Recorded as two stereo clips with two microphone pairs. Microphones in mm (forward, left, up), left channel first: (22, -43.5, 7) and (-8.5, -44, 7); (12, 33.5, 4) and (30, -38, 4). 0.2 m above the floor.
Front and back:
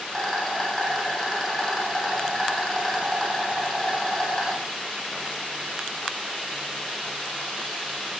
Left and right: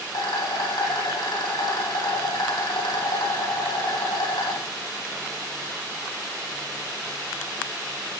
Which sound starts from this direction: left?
A rattle, at 0.1 s.